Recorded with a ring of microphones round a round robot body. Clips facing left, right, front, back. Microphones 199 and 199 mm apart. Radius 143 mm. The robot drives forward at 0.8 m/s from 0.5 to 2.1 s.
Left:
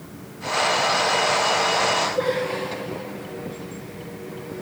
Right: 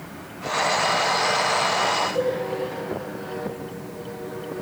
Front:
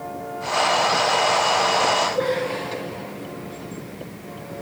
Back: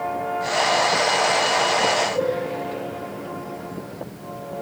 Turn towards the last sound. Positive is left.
turn(degrees=-130)